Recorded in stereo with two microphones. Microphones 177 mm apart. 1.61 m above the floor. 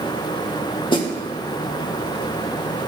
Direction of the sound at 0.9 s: 25° left (ahead or behind).